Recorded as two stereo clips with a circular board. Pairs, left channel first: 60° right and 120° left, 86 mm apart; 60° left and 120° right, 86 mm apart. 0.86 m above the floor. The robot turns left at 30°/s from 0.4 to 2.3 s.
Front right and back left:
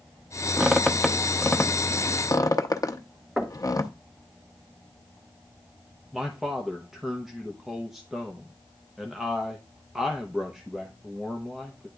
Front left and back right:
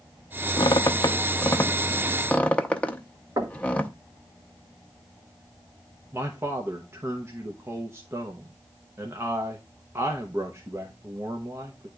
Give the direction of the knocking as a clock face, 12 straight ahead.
5 o'clock.